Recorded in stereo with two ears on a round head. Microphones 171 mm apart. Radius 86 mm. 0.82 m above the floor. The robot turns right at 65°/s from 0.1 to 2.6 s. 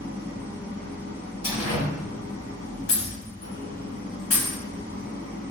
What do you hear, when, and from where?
0.0 s an engine running: 40° right, 1.6 m; by 5.5 s 120° left, 1.6 m
1.4 s a door slam: 25° left (ahead or behind), 0.9 m; by 1.9 s 50° left (ahead or behind), 0.9 m
2.9 s breaking glass: 75° left (ahead or behind), 1.5 m